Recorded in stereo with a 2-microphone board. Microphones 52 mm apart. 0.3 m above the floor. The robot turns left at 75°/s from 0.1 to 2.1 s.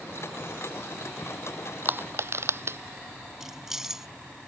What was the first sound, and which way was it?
Crushing, 35° right (ahead or behind).